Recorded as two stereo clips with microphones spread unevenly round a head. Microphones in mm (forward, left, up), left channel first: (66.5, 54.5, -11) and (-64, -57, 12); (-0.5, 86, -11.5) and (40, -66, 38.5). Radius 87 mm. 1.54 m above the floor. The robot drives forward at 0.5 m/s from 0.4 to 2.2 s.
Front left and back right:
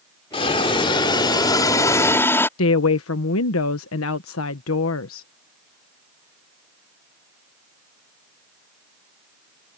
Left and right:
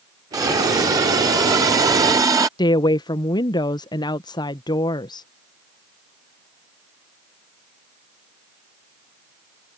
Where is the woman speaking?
35° left.